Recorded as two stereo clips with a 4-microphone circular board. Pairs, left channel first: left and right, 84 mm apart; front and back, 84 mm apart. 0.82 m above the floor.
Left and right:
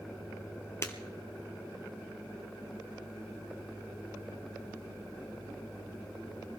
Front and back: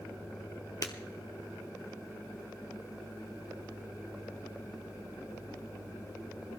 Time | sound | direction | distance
0.8 | breaking glass | 40° left | 1.6 m